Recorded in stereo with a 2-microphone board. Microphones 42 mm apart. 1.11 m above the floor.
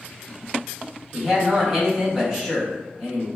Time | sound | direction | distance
1.1 | a man speaking | centre (ahead or behind) | 1.2 m